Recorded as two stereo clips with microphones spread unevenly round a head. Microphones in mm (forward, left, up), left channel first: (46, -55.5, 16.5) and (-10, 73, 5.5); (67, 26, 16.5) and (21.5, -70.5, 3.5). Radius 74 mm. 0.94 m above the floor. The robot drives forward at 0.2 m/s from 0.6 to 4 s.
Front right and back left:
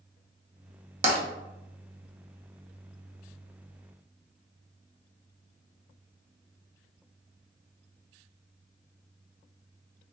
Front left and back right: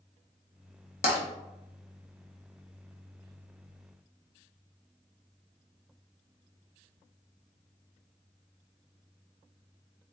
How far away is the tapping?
About 0.7 m.